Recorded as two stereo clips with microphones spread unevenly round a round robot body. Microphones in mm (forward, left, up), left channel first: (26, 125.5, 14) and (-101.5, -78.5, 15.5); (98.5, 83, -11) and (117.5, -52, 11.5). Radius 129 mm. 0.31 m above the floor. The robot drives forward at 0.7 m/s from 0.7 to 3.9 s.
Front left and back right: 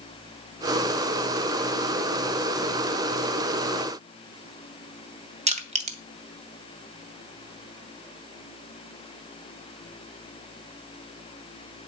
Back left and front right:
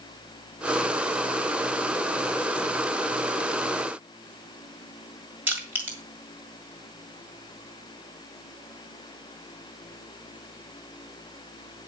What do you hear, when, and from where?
5.5 s crushing: 165° right, 1.7 m